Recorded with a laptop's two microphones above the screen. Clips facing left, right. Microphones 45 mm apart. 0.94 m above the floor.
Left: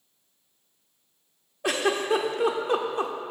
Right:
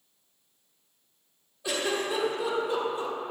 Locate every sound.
1.6 s a giggle: 55° left (ahead or behind), 1.2 m